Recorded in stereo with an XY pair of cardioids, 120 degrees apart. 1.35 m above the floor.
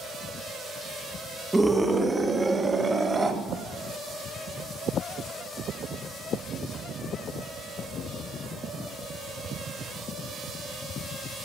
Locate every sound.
1.5 s a scream: 10° right, 1.5 m; by 3.4 s 30° right, 3.5 m